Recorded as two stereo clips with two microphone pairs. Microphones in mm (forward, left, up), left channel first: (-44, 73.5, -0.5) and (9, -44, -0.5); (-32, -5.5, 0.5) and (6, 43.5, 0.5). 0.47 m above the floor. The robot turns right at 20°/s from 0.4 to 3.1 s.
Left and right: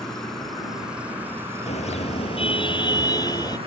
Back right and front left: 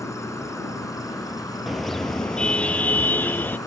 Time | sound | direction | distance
0.0 | an insect | 160° right | ?
1.7 | a car horn | 145° left | ?